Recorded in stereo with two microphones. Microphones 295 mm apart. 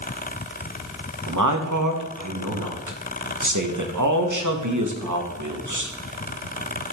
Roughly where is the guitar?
No guitar in this recording.